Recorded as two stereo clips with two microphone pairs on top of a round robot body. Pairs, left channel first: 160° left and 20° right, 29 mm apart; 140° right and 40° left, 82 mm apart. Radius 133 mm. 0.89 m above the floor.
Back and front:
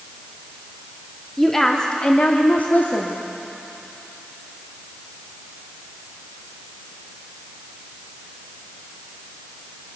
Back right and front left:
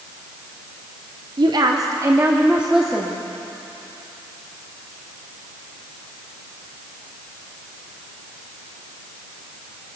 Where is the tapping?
I don't hear tapping.